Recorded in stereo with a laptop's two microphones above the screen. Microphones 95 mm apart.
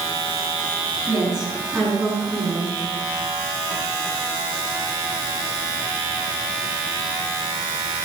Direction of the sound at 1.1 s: 5° right (ahead or behind).